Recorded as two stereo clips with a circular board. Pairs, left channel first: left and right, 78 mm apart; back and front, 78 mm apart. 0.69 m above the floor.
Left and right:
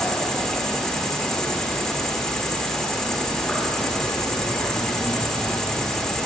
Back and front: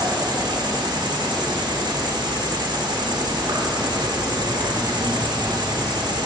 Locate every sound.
0.0 s an insect: 5° left, 0.8 m